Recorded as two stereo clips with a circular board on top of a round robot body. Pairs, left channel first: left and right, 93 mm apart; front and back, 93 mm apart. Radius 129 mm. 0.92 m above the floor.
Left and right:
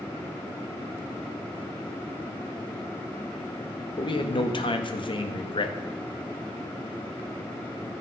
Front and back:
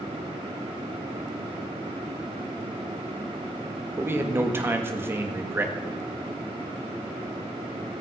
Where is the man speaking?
115° left, 1.7 m.